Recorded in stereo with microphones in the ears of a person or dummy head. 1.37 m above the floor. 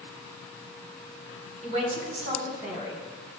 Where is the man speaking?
35° right (ahead or behind), 4 m; by 3.0 s 60° right (ahead or behind), 5 m.